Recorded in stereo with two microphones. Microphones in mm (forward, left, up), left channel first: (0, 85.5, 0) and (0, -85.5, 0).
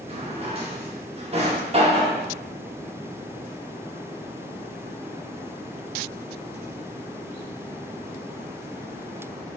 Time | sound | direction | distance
0.1 | a drawer | 35° right (ahead or behind) | 0.6 m